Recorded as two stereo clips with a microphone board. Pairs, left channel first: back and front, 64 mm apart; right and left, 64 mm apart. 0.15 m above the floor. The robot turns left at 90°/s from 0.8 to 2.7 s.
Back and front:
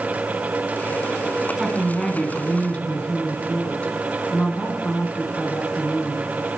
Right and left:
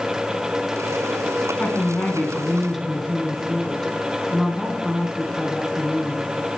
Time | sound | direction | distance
1.6 | a woman speaking | 70° right | 1.4 m